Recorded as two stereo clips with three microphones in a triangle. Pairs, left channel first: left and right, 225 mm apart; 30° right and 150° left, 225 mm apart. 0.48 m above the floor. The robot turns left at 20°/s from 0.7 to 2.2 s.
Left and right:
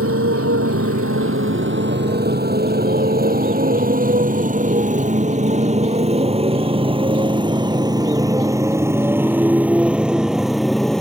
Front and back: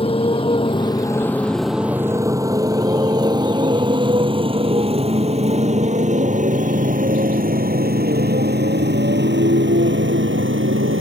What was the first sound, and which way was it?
A motorcycle, 95° right.